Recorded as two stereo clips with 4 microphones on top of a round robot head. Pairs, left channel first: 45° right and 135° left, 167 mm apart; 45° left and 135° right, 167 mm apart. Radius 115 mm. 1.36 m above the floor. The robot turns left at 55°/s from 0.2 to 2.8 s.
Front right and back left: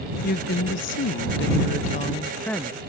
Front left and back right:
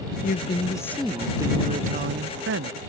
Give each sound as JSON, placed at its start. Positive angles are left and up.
{"t": 0.2, "sound": "a woman speaking", "azimuth_deg": 0}